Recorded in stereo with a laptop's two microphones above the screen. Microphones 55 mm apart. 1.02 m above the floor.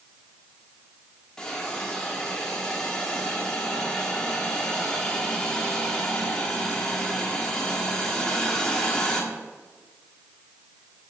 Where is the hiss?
15° left (ahead or behind), 1.5 m.